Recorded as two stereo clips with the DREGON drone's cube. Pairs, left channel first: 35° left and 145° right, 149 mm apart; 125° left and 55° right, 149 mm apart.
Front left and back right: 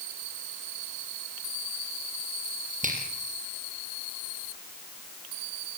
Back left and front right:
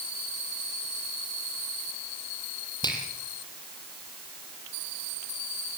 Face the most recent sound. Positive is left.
turn(degrees=-175)